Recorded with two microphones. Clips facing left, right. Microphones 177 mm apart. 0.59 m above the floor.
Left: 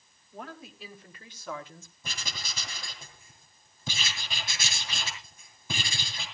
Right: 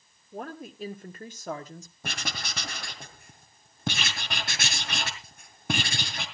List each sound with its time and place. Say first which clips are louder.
0.3 s a woman speaking: right 6 dB; 50° right (ahead or behind), 2 m; by 1.9 s 35° right (ahead or behind), 1.4 m
2.0 s writing: right 6 dB; 65° right (ahead or behind), 2.5 m